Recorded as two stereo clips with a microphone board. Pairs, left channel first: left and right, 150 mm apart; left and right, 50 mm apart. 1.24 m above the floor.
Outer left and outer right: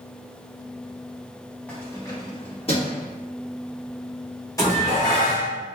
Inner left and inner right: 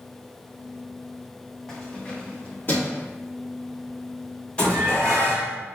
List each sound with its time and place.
1.7 s keys jangling: 10° left (ahead or behind), 1.3 m; by 3.0 s 45° left (ahead or behind), 1.8 m
4.6 s dishes clattering: 25° left (ahead or behind), 2 m